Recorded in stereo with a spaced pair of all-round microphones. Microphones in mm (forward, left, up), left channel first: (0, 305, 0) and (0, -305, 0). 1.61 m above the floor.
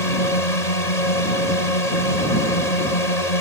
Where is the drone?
80° left.